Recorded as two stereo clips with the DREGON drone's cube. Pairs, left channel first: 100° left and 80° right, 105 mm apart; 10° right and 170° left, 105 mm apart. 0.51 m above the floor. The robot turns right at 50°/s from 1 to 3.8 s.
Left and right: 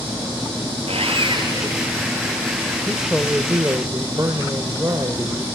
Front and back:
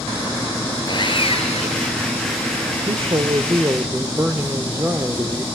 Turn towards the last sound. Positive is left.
turn(degrees=-130)